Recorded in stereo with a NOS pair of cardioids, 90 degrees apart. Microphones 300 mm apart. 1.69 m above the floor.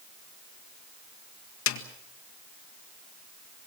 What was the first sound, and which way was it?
A snare drum, 65° left.